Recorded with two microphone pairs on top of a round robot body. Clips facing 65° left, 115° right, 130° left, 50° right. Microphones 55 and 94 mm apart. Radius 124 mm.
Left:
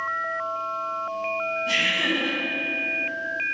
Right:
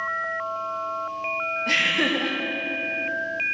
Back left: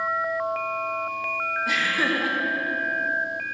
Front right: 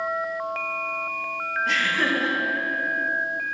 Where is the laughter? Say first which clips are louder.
Right 2 dB, front right 1 dB; 150° right, 1.9 m.